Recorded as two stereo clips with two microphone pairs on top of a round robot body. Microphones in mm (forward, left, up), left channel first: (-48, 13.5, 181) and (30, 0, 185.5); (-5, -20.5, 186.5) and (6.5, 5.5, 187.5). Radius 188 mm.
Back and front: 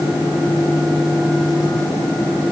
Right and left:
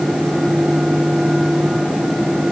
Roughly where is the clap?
No clap in this recording.